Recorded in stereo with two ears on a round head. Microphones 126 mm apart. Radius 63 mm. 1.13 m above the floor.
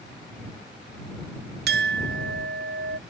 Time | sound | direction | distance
1.7 | a clink | 85° right | ?